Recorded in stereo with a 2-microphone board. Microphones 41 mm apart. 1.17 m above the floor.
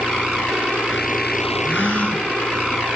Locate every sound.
1.6 s a gasp: 45° left (ahead or behind), 4 m